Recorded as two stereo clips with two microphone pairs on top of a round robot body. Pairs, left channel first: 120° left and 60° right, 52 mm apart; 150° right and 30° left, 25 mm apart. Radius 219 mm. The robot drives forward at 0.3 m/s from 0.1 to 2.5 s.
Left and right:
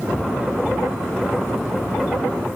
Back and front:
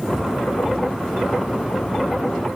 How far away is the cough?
I don't hear a cough.